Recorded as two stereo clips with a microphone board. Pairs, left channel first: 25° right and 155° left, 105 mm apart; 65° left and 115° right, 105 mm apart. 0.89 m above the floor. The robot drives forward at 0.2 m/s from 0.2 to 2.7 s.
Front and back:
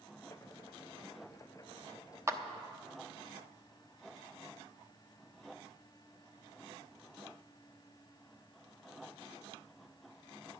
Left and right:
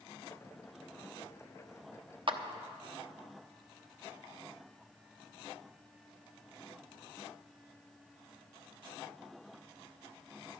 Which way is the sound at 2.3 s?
140° right.